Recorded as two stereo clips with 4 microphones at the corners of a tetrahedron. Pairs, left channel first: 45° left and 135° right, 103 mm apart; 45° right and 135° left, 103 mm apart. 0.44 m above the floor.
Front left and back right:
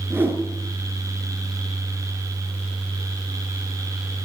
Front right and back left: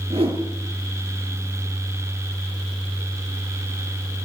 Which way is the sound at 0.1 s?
155° left.